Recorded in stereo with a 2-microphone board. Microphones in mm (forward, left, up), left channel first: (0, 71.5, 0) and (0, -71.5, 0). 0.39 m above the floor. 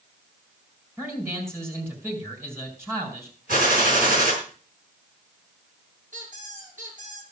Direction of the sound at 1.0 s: 15° right (ahead or behind).